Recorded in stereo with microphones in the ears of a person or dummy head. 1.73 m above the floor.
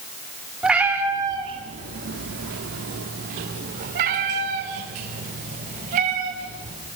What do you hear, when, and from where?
0.6 s a cat meowing: 10° right (ahead or behind), 2.5 m; by 6.8 s 40° right (ahead or behind), 6 m